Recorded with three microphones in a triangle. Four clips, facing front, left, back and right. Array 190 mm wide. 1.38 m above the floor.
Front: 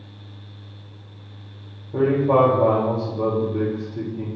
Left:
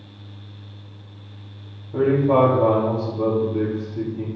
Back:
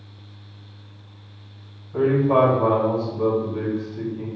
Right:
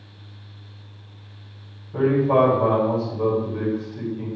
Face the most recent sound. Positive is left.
turn(degrees=25)